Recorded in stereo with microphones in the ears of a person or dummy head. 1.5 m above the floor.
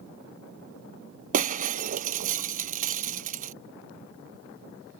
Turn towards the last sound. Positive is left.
turn(degrees=-50)  # may be behind; listen again after turning